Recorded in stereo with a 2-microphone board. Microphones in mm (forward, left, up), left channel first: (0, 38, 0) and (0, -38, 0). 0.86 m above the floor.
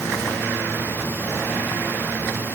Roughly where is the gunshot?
No gunshot in this recording.